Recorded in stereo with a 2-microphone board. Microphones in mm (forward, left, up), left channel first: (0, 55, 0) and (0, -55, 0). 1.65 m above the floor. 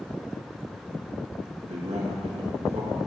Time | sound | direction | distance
1.7 | a man speaking | 65° right (ahead or behind) | 2 m